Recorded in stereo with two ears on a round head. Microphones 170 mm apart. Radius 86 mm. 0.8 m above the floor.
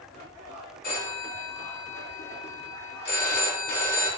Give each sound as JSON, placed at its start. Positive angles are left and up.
{"t": 0.8, "sound": "a phone ringing", "side_deg": 55, "distance_m": 4.5}